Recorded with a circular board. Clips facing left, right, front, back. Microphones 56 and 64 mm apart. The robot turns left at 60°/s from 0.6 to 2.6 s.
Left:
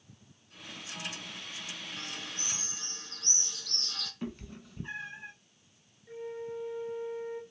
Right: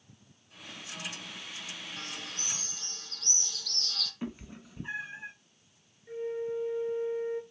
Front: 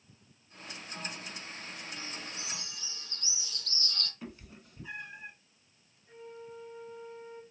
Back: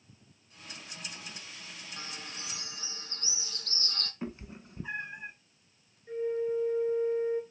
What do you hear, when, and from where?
2.0 s a bird: 175° left, 0.7 m; by 4.1 s 135° left, 0.7 m
4.2 s a cat meowing: 155° right, 0.6 m
6.1 s a flute: 160° right, 1.0 m